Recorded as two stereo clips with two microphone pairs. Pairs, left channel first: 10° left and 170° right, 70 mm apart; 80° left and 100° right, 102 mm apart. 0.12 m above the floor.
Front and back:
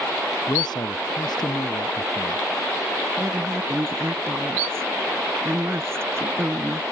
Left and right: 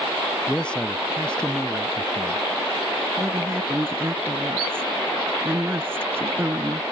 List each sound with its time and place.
0.5 s a man speaking: straight ahead
3.2 s a woman speaking: 155° right